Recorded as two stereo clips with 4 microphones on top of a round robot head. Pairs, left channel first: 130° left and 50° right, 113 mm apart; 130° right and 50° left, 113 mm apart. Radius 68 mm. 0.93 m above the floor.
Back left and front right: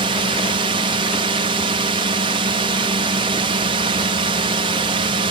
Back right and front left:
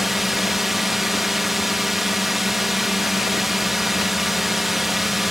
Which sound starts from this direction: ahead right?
A drone, at 0.0 s.